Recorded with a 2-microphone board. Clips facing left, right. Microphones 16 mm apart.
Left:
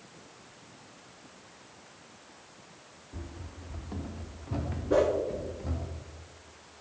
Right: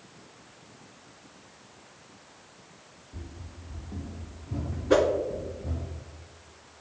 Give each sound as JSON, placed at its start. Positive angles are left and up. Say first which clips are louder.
{"t": 3.1, "sound": "running footsteps", "louder": "left 1 dB", "side_deg": 65, "distance_m": 0.8}
{"t": 4.9, "sound": "a whoosh", "louder": "right 3 dB", "side_deg": -70, "distance_m": 1.3}